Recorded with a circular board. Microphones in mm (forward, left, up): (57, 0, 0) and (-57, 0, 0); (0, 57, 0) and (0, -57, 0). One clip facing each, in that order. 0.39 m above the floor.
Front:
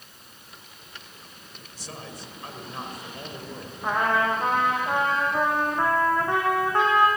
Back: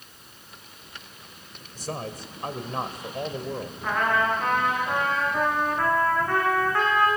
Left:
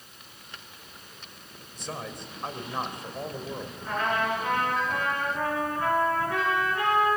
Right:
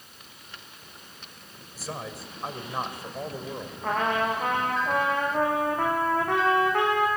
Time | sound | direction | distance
1.8 | a man speaking | 175° right | 1.6 m
3.8 | a trumpet | 70° right | 5 m